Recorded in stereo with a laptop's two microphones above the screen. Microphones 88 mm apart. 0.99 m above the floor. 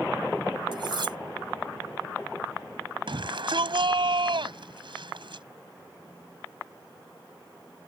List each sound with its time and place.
0.7 s cutlery clinking: 60° right (ahead or behind)
3.1 s a shout: 65° right (ahead or behind)